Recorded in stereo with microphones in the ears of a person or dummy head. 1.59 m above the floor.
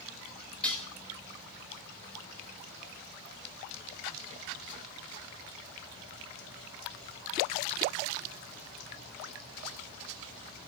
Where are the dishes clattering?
5° left (ahead or behind), 2.5 m.